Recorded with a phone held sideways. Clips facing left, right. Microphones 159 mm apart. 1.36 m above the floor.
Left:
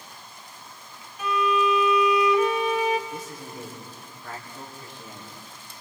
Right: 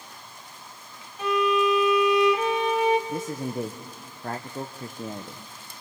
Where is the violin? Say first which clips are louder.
Right 1 dB; 30° right (ahead or behind), 1.9 m.